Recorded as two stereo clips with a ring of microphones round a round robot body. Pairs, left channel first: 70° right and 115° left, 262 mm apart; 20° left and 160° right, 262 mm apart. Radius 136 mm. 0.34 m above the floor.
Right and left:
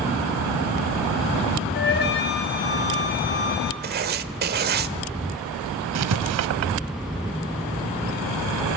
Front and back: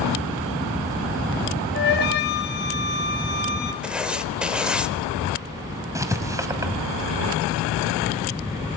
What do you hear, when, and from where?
1.7 s a flute: 25° right, 3 m
3.8 s writing: 120° left, 1.2 m
6.0 s writing: 125° left, 1.4 m